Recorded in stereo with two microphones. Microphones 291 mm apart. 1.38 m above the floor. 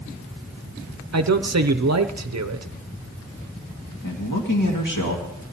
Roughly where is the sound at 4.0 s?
Left.